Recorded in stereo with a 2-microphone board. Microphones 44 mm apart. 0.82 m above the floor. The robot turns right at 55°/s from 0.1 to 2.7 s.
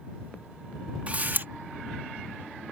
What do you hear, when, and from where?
1.1 s a camera shutter: 30° right (ahead or behind); by 1.5 s 50° right (ahead or behind)